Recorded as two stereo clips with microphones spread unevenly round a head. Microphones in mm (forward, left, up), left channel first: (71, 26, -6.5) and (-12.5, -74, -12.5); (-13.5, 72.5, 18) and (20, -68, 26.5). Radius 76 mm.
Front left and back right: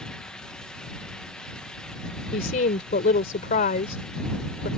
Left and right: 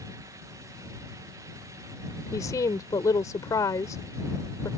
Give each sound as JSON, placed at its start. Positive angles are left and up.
{"t": 2.3, "sound": "a woman speaking", "azimuth_deg": 35}